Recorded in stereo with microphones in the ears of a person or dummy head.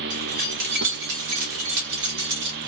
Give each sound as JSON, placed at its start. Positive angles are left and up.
{"t": 0.1, "sound": "keys jangling", "side_deg": -45, "distance_m": 1.1}